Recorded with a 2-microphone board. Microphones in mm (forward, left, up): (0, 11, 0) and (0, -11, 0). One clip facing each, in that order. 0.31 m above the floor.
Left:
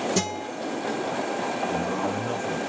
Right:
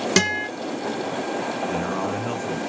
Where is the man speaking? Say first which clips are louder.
Right 1 dB; 30° right (ahead or behind), 1.4 m.